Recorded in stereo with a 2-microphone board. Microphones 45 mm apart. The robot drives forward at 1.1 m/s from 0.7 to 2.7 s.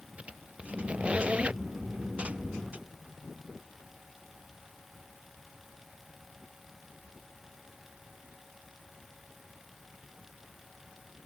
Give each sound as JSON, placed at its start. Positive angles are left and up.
{"t": 0.2, "sound": "a squeak", "side_deg": -30}